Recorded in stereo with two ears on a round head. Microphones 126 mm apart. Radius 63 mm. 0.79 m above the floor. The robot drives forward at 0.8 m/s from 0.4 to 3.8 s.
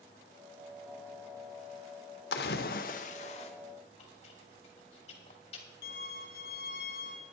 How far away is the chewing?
About 2 m.